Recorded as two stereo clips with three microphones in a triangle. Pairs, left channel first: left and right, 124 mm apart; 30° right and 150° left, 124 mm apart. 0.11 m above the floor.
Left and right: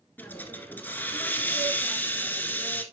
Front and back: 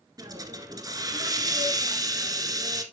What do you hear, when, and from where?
0.2 s a hiss: 150° left, 1.5 m